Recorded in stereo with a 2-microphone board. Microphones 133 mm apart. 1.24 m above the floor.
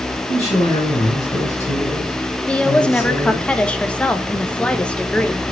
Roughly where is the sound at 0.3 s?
Left.